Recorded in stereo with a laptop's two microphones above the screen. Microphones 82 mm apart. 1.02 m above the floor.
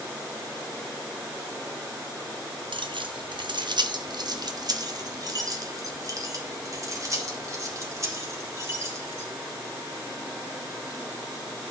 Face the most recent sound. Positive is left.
turn(degrees=-35)  # may be behind; listen again after turning